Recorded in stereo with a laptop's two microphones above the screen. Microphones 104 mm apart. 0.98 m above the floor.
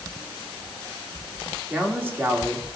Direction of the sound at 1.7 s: 20° right (ahead or behind).